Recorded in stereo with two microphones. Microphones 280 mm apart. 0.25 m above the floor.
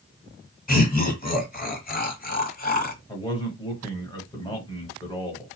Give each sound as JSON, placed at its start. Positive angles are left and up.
{"t": 0.7, "sound": "laughter", "side_deg": 30, "distance_m": 1.3}
{"t": 3.1, "sound": "a man speaking", "side_deg": 15, "distance_m": 1.2}